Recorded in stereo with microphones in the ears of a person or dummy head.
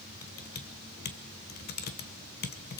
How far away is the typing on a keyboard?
About 1.2 m.